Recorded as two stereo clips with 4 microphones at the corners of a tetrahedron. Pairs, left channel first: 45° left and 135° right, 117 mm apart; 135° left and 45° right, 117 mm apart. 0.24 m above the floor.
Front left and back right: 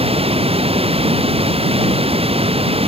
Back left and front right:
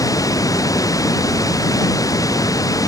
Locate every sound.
0.0 s running water: 165° right